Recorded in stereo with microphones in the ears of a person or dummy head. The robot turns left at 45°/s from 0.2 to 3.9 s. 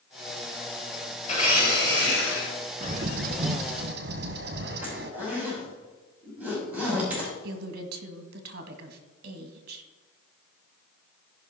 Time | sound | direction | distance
1.2 | a blender | 140° left | 3 m
2.8 | a bird | 55° right | 1.0 m
4.8 | a zipper | 15° right (ahead or behind) | 5 m
7.4 | a woman speaking | 60° right (ahead or behind) | 1.6 m